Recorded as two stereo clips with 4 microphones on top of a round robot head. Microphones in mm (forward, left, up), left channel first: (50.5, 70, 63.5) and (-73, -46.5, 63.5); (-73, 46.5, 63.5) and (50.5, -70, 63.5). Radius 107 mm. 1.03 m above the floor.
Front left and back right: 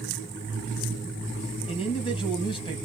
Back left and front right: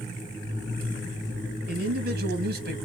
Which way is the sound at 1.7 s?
15° right.